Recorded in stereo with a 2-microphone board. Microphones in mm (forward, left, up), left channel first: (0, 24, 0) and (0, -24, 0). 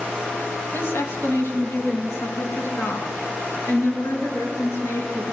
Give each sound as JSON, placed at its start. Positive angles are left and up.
{"t": 0.7, "sound": "a woman speaking", "side_deg": 50, "distance_m": 2.5}